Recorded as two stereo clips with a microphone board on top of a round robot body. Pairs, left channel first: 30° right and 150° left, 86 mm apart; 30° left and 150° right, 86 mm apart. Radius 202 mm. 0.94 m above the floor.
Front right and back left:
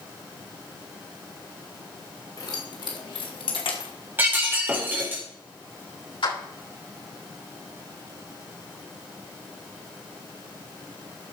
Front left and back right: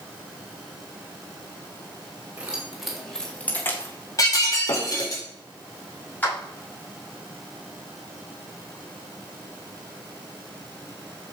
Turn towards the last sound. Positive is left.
turn(degrees=-40)